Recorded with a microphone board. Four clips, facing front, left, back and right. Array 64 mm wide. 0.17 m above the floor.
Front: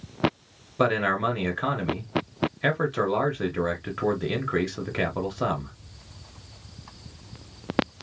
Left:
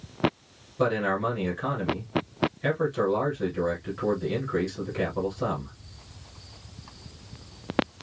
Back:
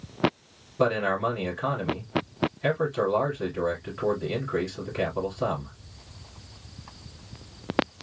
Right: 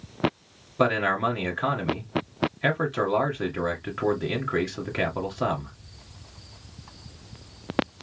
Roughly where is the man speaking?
Ahead right.